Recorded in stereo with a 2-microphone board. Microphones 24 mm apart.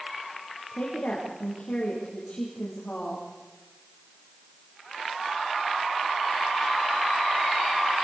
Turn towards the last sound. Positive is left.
turn(degrees=55)  # may be behind; listen again after turning